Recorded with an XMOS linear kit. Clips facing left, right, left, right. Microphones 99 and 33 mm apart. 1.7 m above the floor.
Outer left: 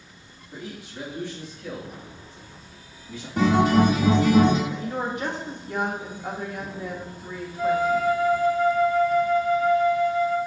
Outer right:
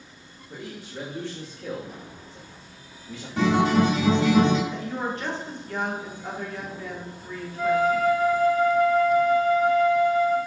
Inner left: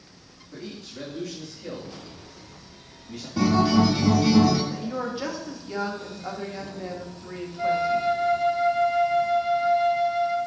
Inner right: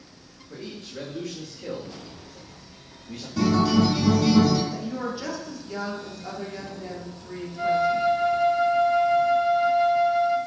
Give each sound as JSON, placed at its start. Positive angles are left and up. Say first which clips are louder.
{"t": 0.5, "sound": "a man speaking", "louder": "even, inner right 1 dB", "side_deg": -80, "distance_m": 1.0}
{"t": 3.4, "sound": "a guitar", "louder": "outer left 2 dB, inner left 1 dB", "side_deg": 10, "distance_m": 1.1}
{"t": 4.7, "sound": "a woman speaking", "louder": "outer left 1 dB, inner left 1 dB", "side_deg": 15, "distance_m": 0.8}
{"t": 7.6, "sound": "a flute", "louder": "even, inner right 1 dB", "side_deg": -60, "distance_m": 0.9}